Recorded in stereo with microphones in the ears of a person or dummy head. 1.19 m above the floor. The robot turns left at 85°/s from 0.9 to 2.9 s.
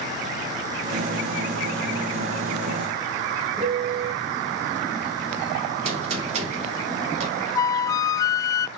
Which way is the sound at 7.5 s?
20° left (ahead or behind).